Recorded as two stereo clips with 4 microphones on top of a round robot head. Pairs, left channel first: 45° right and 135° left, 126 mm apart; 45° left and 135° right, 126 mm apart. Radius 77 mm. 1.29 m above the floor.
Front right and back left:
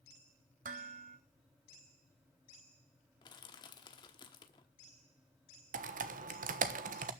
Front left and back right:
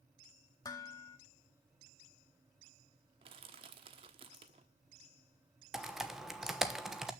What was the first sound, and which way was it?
Dishes clattering, 110° left.